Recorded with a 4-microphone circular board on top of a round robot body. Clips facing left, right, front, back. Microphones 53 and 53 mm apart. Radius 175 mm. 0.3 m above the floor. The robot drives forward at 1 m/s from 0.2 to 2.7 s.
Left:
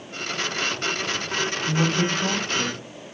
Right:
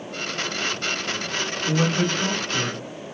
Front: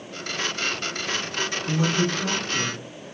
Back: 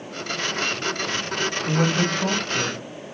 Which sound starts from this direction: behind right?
A man speaking, at 1.7 s.